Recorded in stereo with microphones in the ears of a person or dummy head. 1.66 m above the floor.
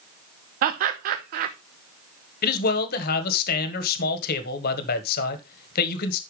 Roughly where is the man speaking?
Left.